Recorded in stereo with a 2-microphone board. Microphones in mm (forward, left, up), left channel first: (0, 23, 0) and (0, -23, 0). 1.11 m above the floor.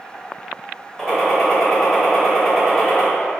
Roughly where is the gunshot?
Centre.